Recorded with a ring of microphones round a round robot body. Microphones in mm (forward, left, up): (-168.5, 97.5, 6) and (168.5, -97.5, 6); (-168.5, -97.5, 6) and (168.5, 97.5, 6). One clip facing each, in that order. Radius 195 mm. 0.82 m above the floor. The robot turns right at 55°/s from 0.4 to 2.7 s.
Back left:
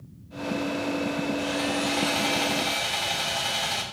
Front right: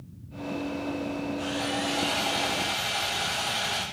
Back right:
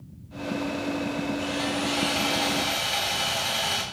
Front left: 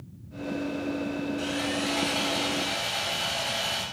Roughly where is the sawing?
Left.